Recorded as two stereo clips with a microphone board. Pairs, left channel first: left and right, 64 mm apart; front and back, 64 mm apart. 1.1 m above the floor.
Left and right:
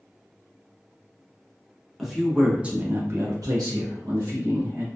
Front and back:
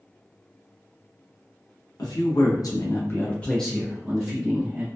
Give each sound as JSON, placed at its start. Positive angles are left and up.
{"t": 2.0, "sound": "a man speaking", "azimuth_deg": 0, "distance_m": 0.9}